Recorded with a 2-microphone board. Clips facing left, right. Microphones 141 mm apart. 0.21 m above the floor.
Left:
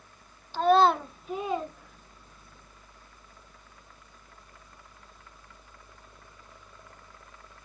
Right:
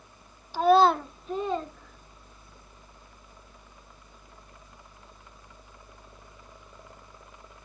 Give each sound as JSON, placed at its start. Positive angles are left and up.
{"t": 0.5, "sound": "a child speaking", "side_deg": -10, "distance_m": 0.6}